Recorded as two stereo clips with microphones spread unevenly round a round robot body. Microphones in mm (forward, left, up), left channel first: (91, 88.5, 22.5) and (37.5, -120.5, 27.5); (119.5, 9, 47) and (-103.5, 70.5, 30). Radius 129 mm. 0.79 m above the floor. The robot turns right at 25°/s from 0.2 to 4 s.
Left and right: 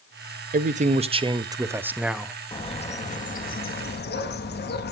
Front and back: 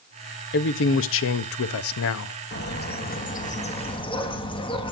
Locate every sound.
0.5 s a man speaking: 55° right, 0.6 m; by 2.4 s 10° right, 0.6 m
2.5 s a bird: 15° left, 1.3 m; by 4.9 s 50° left, 1.3 m